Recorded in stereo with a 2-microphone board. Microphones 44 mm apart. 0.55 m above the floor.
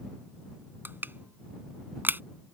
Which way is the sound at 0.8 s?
50° right (ahead or behind).